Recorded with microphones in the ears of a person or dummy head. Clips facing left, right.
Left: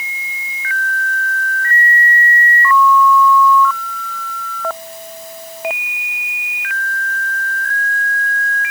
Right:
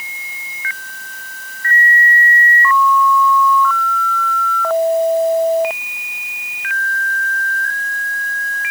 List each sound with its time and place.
Only background noise.